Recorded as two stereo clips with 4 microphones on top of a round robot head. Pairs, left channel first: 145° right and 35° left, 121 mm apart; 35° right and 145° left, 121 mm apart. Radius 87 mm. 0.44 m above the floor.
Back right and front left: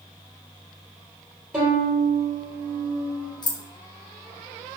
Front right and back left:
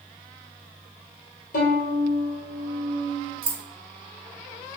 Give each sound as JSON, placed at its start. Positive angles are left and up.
{"t": 1.5, "sound": "a violin", "azimuth_deg": -45, "distance_m": 1.8}
{"t": 3.4, "sound": "keys jangling", "azimuth_deg": 170, "distance_m": 0.7}